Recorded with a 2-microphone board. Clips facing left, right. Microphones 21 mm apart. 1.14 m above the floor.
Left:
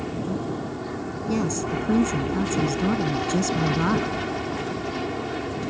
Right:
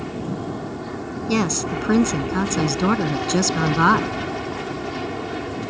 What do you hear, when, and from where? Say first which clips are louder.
0.0 s an aircraft: even; 5° right (ahead or behind)
1.3 s a woman speaking: right 4 dB; 50° right (ahead or behind)